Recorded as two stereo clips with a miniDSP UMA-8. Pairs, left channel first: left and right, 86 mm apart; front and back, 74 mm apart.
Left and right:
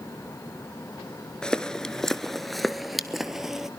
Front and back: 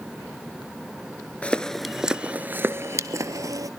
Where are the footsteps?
30° left, 0.8 m; by 3.7 s 175° right, 1.2 m.